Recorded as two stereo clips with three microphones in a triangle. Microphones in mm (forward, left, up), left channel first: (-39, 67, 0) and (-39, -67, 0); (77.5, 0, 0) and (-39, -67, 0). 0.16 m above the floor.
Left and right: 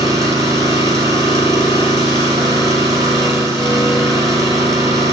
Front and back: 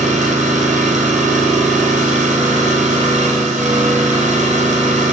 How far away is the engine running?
About 2.0 m.